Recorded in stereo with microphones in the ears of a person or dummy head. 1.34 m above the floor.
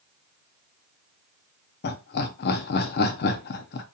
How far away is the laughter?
About 0.5 m.